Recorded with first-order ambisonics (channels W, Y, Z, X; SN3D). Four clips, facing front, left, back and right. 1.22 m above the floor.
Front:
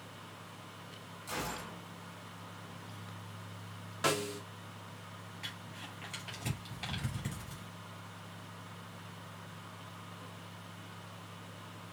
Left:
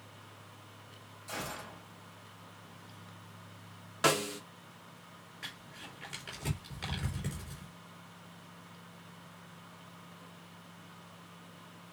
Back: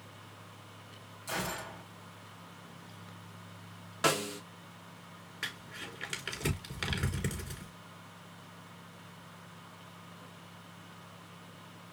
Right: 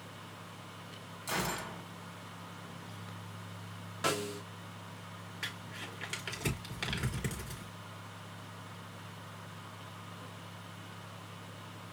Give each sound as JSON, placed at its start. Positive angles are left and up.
{"t": 1.3, "sound": "a gunshot", "azimuth_deg": -105, "distance_m": 2.5}
{"t": 4.0, "sound": "a snare drum", "azimuth_deg": 120, "distance_m": 0.6}
{"t": 5.4, "sound": "crumpling", "azimuth_deg": -155, "distance_m": 3.0}